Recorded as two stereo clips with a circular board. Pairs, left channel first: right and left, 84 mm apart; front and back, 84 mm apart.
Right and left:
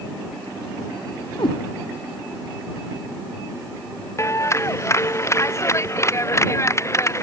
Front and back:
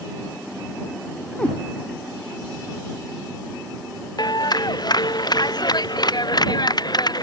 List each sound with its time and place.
1.4 s a cat meowing: 75° right
4.2 s a clap: 35° right